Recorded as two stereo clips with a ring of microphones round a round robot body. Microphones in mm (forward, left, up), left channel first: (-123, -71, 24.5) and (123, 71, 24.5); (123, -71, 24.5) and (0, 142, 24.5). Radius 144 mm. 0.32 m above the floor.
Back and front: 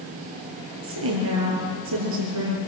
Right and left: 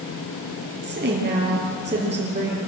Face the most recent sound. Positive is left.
turn(degrees=60)